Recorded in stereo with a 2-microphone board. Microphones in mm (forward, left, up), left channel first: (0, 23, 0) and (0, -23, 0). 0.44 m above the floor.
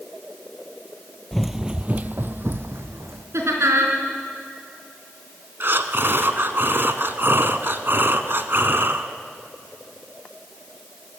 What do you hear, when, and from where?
1.3 s running footsteps: 5° left (ahead or behind), 0.7 m; by 3.2 s 70° right (ahead or behind), 1.6 m
3.3 s laughter: 80° right, 4.5 m
5.6 s breathing: 55° right (ahead or behind), 1.1 m